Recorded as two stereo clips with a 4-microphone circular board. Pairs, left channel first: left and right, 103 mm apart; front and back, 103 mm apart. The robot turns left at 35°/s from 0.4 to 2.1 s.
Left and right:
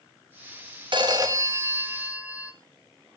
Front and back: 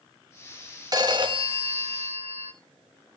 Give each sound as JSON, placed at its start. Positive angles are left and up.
{"t": 0.9, "sound": "a phone ringing", "azimuth_deg": -130, "distance_m": 1.2}